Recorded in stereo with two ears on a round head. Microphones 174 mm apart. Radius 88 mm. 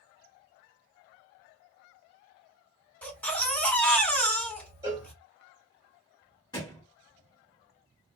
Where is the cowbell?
15° right (ahead or behind), 0.8 m.